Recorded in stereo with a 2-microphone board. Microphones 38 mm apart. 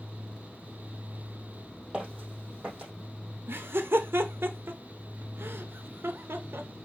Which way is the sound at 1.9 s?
30° right (ahead or behind).